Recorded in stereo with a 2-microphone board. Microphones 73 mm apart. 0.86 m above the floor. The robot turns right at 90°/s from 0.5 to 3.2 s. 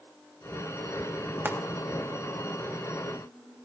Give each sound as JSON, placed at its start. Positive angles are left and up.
{"t": 1.4, "sound": "frying", "side_deg": -35, "distance_m": 1.9}